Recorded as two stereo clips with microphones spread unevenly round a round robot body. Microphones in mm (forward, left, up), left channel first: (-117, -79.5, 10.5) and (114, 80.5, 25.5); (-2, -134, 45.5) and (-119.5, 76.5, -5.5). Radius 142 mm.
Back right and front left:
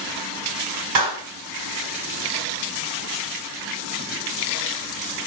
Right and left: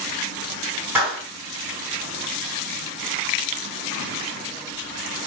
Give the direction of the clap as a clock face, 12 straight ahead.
11 o'clock.